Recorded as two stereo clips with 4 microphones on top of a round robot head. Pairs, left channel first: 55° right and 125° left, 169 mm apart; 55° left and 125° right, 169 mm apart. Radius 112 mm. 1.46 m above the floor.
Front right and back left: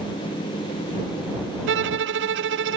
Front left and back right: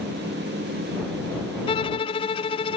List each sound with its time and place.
1.7 s a violin: 115° left